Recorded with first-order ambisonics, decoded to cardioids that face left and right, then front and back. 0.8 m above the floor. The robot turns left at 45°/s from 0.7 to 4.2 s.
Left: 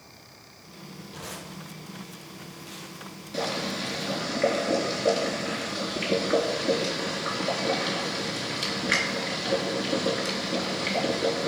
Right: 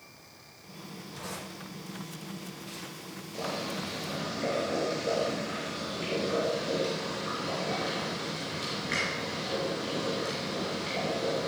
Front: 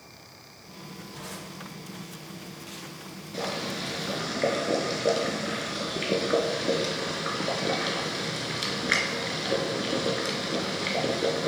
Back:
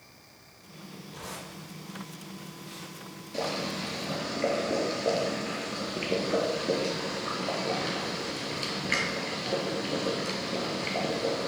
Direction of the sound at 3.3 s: 70° left.